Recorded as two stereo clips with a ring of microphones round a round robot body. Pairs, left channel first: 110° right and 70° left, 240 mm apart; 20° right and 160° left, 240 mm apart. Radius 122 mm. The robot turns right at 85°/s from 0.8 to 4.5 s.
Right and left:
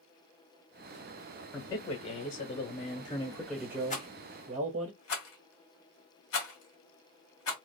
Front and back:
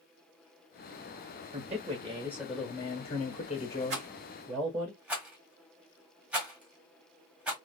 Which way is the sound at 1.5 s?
170° left.